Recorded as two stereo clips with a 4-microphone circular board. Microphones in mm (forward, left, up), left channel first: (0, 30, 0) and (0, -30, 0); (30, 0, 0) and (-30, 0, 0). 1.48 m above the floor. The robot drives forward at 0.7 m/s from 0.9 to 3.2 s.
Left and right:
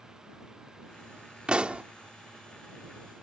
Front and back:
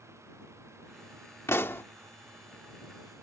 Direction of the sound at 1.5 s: 25° right.